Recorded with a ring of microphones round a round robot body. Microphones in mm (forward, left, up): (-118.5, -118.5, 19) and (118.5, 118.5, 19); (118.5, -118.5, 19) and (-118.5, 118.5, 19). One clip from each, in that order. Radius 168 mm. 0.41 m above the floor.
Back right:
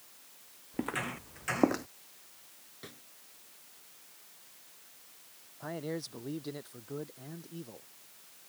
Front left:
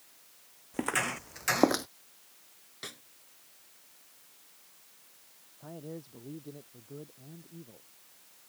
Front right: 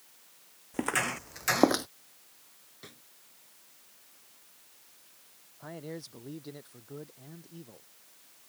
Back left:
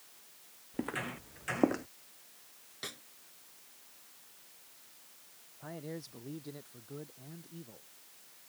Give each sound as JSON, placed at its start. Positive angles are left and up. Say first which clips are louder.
{"t": 0.7, "sound": "footsteps", "louder": "front left 5 dB, front right 8 dB", "azimuth_deg": -5}
{"t": 2.8, "sound": "a snare drum", "louder": "front left 7 dB, back left 8 dB", "azimuth_deg": 85}
{"t": 5.6, "sound": "a man speaking", "louder": "back right 6 dB, front right 2 dB", "azimuth_deg": -120}